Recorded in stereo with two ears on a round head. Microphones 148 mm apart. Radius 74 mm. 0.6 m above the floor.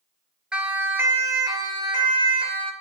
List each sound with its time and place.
0.5 s a siren: 5° right (ahead or behind), 2 m; by 2.7 s 40° right (ahead or behind), 3 m